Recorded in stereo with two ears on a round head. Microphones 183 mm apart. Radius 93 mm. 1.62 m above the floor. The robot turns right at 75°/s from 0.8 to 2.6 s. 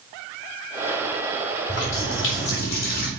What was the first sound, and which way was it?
A running tap, 55° left.